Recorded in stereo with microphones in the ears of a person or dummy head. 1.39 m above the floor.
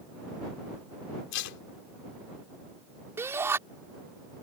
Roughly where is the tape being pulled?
Left.